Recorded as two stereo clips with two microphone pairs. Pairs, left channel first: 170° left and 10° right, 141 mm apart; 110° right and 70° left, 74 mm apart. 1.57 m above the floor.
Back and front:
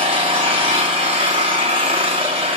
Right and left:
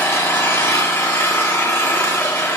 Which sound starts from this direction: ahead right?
An engine running, at 0.0 s.